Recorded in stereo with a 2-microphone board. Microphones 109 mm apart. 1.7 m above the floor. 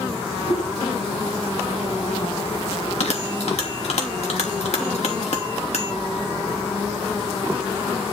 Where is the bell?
70° left (ahead or behind), 3 m.